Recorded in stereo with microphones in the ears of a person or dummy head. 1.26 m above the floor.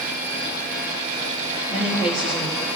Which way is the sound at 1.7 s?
30° left (ahead or behind).